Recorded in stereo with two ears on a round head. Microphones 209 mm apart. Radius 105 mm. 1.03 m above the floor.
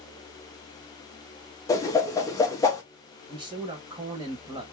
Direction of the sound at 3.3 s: 20° right (ahead or behind).